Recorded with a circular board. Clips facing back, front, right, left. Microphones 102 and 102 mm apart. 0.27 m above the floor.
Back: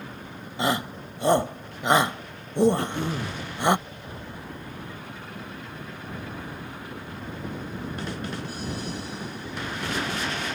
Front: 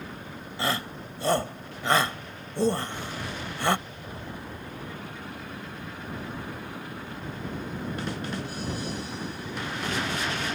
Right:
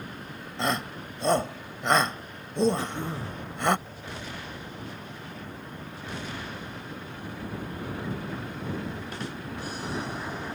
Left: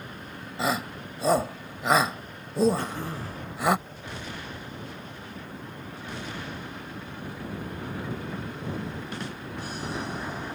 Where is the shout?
165° left.